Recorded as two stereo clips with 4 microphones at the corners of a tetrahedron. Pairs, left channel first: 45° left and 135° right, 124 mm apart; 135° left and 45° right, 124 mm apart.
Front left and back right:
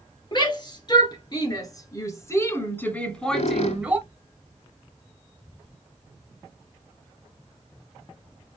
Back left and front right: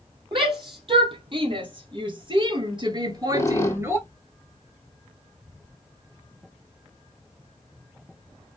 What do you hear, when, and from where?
0.3 s a shout: 5° right, 2.5 m; by 4.0 s 80° right, 1.1 m
3.0 s a squeak: 70° left, 0.9 m